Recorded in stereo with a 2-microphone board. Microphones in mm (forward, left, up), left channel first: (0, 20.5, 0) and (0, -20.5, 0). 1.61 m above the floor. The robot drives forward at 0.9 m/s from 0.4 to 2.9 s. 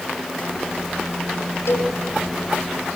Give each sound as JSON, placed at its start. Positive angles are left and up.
{"t": 1.7, "sound": "a cowbell", "side_deg": 70, "distance_m": 4.0}